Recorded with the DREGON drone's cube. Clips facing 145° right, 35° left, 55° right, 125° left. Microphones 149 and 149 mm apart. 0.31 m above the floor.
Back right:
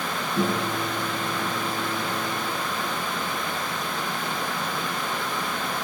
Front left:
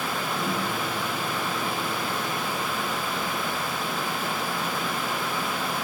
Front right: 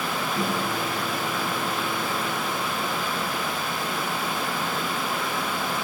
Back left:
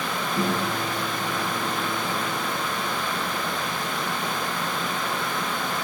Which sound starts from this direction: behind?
A microwave, at 0.4 s.